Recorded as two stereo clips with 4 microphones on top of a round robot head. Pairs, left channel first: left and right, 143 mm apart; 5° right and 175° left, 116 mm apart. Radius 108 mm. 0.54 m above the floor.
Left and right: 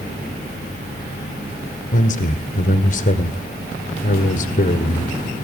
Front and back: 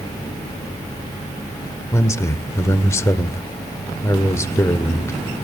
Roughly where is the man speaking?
Ahead left.